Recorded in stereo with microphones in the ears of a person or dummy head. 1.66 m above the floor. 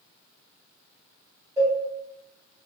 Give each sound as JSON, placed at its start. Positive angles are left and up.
{"t": 1.6, "sound": "a cowbell", "side_deg": -15, "distance_m": 1.9}